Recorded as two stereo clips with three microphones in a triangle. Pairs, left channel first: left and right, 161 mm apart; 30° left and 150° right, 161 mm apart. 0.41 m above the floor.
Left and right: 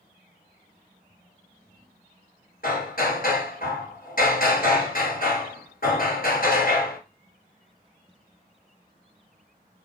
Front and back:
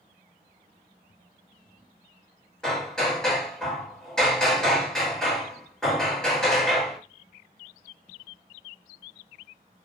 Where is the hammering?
115° left, 2.5 m.